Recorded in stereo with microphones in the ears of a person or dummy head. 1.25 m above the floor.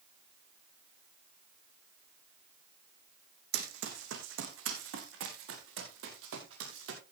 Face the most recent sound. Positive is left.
turn(degrees=-75)  # may be behind; listen again after turning